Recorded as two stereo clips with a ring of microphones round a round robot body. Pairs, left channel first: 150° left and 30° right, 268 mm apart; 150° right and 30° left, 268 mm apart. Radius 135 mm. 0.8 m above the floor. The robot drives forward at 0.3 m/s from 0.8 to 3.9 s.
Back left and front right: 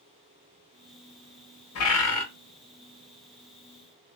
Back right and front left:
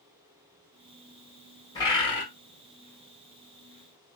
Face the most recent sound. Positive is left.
turn(degrees=155)